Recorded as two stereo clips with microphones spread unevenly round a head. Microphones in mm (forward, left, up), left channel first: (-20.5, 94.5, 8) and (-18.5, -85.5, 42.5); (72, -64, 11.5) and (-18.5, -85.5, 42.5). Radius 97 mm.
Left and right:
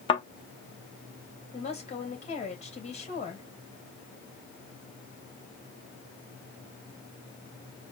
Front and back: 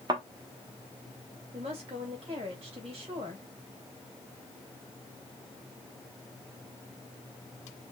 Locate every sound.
0.1 s a thud: 155° left, 0.8 m
1.5 s a woman speaking: 140° left, 2 m